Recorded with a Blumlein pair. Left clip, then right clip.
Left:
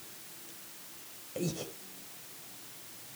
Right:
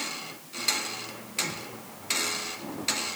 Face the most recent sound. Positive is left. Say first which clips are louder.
# right 5 dB
turn(degrees=40)